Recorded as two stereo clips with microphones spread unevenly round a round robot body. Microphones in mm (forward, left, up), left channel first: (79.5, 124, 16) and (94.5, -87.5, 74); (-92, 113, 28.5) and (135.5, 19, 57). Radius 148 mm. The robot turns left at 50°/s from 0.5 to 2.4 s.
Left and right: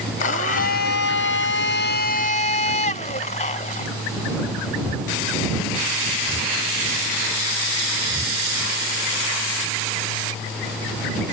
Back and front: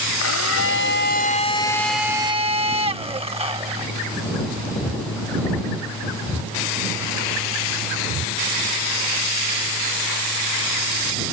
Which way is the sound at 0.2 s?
140° left.